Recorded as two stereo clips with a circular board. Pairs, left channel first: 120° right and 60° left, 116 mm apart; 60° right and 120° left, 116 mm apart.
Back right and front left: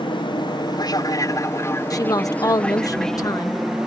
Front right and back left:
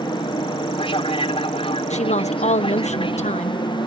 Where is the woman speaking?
60° right.